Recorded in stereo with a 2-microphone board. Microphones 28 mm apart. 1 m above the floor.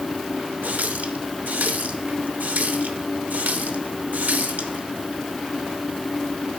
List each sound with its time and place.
0.6 s a running tap: 80° right, 0.7 m